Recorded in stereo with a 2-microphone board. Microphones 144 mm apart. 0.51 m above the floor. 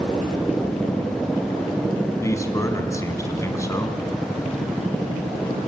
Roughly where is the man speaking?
Left.